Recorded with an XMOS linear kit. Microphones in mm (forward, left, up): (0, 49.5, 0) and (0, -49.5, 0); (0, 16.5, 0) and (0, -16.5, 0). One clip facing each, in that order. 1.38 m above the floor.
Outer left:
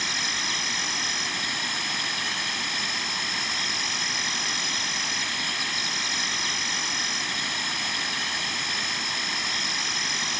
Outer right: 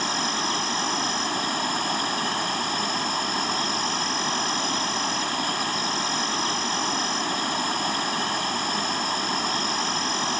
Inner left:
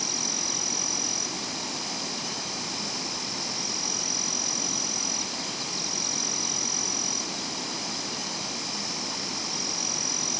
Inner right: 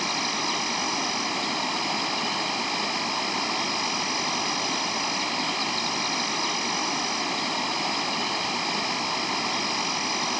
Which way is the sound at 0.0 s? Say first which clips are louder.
Outer right 6 dB, inner right 6 dB; 40° right (ahead or behind).